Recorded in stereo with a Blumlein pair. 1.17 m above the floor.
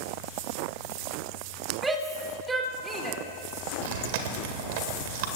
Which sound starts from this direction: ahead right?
Chewing, at 3.8 s.